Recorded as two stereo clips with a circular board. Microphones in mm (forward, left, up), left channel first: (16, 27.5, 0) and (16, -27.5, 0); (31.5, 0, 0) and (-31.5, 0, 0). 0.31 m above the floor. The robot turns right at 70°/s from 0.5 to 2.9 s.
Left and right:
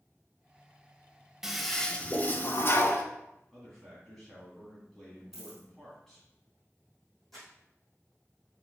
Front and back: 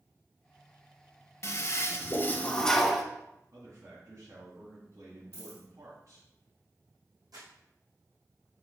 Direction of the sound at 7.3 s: Straight behind.